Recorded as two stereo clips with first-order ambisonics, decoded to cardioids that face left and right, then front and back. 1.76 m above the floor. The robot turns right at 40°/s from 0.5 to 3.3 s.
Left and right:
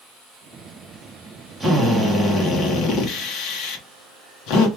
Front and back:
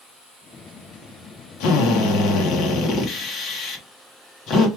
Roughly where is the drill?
Ahead.